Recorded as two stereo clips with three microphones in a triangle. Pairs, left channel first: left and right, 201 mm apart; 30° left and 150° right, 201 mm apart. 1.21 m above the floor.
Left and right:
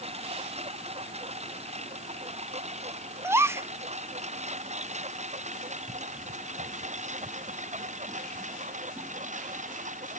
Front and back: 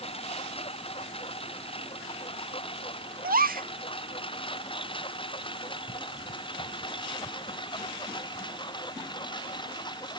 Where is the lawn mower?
30° right; by 10.2 s 40° right.